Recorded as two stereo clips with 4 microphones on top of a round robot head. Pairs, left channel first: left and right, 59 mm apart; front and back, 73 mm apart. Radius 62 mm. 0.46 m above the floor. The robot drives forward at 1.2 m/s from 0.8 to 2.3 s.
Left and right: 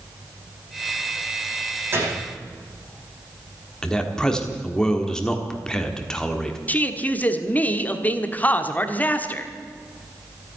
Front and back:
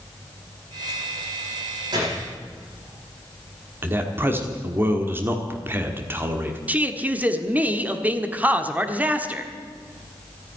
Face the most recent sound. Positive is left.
turn(degrees=130)